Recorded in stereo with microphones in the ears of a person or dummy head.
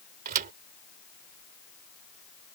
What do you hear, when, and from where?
0.2 s a thud: 50° right (ahead or behind)